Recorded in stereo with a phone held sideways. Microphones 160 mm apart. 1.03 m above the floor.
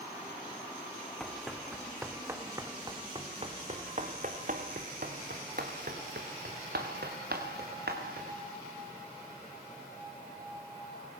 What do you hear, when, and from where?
1.2 s running footsteps: 5° left (ahead or behind), 3.5 m; by 8.4 s 80° right, 6.5 m